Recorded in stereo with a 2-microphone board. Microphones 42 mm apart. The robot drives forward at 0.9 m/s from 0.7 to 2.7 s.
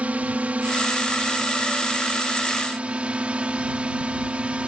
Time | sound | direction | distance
0.0 | a drone | 35° right (ahead or behind) | ?